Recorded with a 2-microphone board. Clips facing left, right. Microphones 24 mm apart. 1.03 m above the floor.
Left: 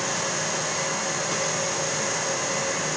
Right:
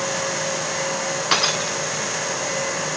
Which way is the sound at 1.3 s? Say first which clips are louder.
Right 6 dB; 85° right.